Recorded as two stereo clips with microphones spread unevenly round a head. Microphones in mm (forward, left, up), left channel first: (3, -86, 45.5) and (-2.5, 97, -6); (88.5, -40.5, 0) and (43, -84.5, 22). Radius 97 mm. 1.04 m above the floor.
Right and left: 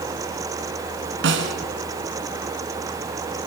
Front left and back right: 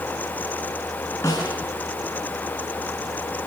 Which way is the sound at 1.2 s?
120° left.